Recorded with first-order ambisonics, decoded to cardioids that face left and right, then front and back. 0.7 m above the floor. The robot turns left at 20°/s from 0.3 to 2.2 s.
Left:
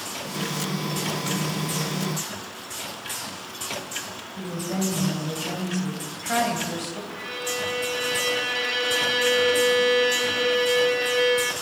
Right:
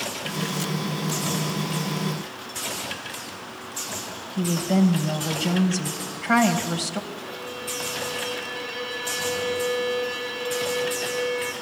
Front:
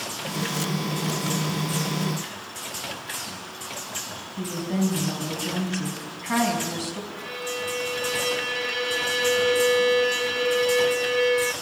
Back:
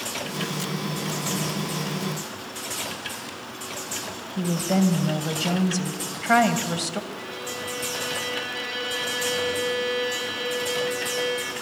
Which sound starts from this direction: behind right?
A woman speaking, at 4.4 s.